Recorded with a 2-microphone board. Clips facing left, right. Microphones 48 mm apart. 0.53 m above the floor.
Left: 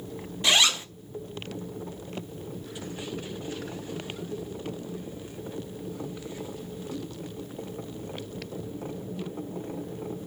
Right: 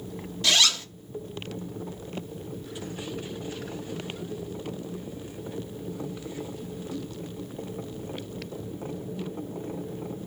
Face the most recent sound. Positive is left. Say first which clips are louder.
# left 1 dB
turn(degrees=20)  # may be behind; listen again after turning